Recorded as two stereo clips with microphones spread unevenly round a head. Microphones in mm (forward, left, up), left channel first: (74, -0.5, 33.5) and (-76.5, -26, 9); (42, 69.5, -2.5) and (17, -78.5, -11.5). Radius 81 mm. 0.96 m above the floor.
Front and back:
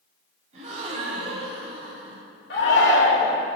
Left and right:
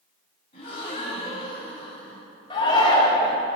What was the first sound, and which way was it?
A gasp, 135° left.